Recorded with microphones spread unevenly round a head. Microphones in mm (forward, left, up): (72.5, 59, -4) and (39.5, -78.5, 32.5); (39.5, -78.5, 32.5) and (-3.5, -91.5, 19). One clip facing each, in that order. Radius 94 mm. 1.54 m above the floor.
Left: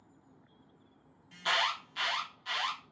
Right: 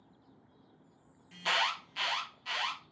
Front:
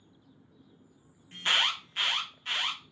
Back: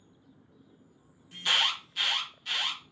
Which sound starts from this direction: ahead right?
An alarm, at 1.3 s.